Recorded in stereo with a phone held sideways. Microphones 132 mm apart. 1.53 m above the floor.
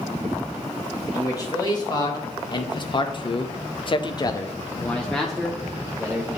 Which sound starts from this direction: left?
A man speaking, at 1.1 s.